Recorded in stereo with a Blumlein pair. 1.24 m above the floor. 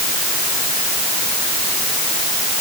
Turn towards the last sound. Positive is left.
No sound to turn to.